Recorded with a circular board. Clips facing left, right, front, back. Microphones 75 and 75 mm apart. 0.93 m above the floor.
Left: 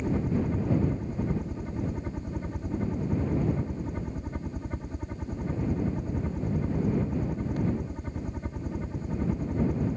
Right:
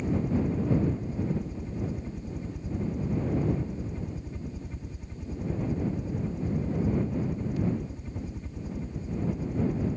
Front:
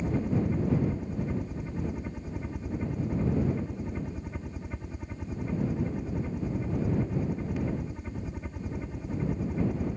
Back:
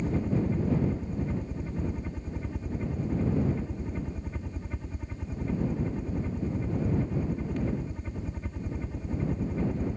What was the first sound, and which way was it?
A helicopter, 80° left.